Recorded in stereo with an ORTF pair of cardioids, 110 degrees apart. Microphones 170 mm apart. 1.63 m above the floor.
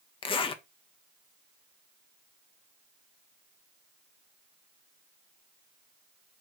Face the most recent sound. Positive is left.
turn(degrees=30)